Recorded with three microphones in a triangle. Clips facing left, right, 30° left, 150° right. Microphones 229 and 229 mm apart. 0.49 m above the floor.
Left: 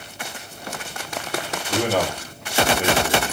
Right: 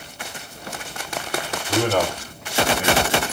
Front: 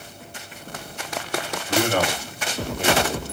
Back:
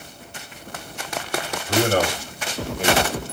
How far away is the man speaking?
About 1.5 m.